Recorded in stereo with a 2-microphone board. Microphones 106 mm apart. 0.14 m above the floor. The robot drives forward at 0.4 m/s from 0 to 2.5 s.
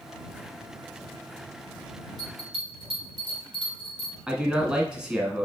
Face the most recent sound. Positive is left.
turn(degrees=-10)  # may be behind; listen again after turning